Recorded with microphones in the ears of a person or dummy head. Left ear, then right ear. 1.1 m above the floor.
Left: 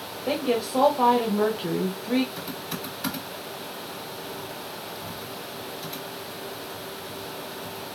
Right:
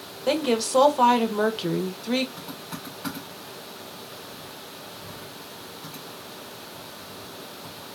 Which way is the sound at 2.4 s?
75° left (ahead or behind).